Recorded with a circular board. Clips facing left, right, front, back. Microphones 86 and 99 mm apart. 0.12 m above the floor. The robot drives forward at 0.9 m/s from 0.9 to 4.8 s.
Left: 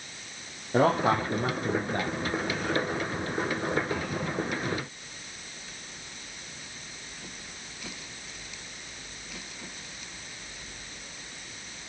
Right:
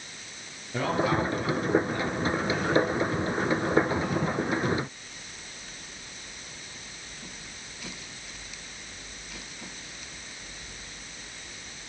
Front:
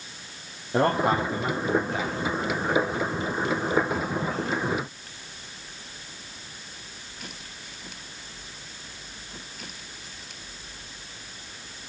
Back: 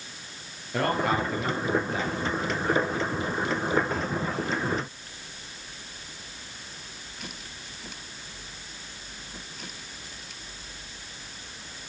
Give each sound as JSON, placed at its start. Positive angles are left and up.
{"t": 0.7, "sound": "a man speaking", "azimuth_deg": 60, "distance_m": 2.5}